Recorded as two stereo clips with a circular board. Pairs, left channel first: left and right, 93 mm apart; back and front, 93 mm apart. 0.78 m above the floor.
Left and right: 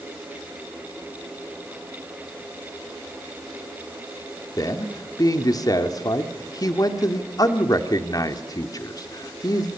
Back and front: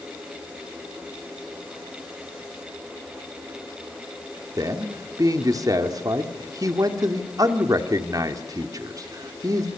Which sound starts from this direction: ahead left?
A man speaking, at 4.6 s.